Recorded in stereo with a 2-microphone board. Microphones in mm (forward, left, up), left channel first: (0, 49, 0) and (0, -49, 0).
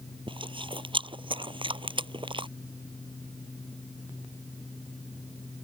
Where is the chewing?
60° right (ahead or behind).